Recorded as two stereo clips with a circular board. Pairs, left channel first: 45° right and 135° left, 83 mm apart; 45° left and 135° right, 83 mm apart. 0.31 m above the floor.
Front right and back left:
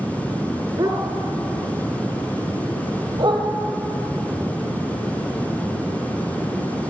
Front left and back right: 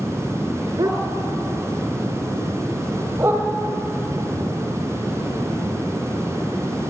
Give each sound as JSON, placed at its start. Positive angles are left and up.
{"t": 0.8, "sound": "a dog barking", "azimuth_deg": 175, "distance_m": 2.5}